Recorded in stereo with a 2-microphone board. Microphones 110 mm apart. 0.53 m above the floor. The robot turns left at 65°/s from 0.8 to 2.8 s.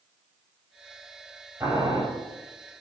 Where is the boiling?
20° right (ahead or behind), 1.3 m; by 2.0 s 45° right (ahead or behind), 1.3 m.